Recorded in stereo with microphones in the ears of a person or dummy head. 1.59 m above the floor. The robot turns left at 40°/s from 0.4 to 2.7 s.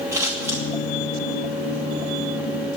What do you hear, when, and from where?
0.1 s scissors: 15° right (ahead or behind), 2.5 m; by 0.6 s 5° right (ahead or behind), 2.5 m